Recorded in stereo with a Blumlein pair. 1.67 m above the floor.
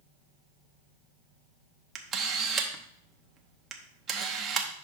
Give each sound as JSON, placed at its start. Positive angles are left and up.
{"t": 1.9, "sound": "a camera shutter", "azimuth_deg": -25, "distance_m": 1.0}